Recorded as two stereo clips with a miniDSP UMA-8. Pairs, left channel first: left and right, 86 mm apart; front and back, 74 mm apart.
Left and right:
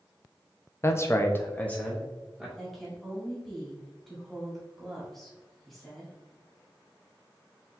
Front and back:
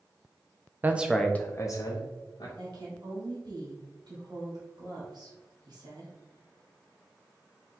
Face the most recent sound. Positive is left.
turn(degrees=180)